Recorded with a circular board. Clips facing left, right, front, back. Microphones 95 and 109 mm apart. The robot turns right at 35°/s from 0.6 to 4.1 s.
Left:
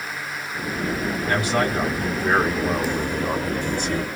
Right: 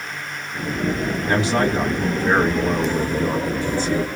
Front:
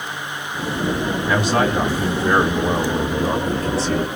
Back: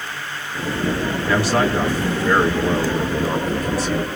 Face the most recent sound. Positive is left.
turn(degrees=40)